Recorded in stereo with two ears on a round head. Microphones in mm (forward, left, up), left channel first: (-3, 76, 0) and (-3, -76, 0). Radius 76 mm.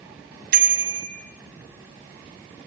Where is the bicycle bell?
55° right (ahead or behind), 4 m.